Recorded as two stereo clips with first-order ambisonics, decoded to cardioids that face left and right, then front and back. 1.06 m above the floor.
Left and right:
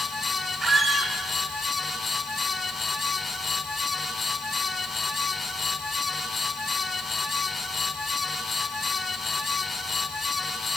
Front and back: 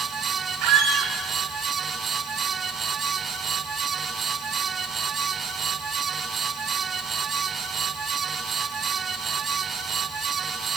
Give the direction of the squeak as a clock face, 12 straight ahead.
5 o'clock.